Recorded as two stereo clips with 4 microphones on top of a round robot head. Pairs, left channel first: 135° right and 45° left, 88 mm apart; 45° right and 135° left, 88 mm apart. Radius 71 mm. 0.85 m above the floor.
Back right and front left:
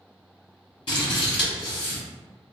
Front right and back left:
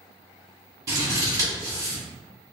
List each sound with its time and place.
0.9 s scissors: 170° right, 1.4 m